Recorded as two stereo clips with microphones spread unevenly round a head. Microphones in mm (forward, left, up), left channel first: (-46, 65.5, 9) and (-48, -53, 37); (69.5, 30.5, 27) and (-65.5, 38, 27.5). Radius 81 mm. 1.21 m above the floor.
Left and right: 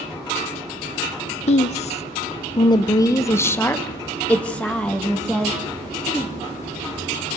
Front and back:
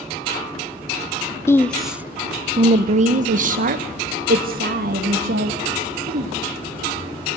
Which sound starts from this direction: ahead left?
A woman speaking, at 1.5 s.